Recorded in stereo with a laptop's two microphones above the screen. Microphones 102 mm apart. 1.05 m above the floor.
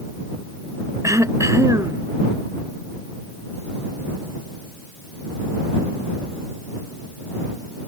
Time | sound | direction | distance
1.0 | throat clearing | 30° right (ahead or behind) | ?